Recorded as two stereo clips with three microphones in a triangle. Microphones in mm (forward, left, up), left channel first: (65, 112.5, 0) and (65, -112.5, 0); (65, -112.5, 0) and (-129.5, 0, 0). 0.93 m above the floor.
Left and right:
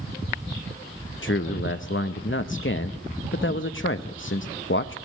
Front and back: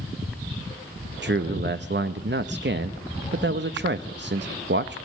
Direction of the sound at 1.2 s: 115° left.